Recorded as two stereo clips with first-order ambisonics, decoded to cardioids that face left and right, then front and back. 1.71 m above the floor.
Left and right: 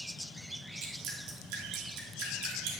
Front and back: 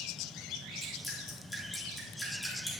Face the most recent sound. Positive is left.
turn(degrees=-75)